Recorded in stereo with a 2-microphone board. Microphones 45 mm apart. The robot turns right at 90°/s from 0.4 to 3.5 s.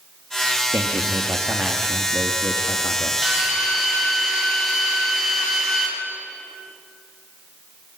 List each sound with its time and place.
0.7 s a man speaking: 115° right, 2.0 m; by 3.1 s 100° left, 2.0 m
3.2 s a drill: 20° right (ahead or behind), 6 m; by 5.9 s 5° left (ahead or behind), 6 m